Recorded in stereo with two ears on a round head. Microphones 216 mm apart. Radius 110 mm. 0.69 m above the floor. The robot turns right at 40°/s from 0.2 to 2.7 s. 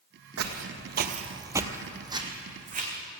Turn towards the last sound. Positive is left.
turn(degrees=-35)  # may be behind; listen again after turning